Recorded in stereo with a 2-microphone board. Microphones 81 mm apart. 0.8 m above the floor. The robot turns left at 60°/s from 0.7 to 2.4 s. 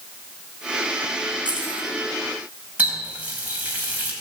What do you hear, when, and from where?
1.4 s keys jangling: 75° right (ahead or behind), 4 m; by 1.9 s 80° right, 4 m
2.8 s a running tap: 20° right (ahead or behind), 3.5 m